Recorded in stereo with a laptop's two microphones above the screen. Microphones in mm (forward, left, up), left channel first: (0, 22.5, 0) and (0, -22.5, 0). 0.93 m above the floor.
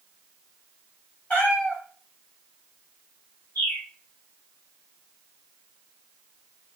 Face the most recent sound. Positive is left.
turn(degrees=70)  # may be behind; listen again after turning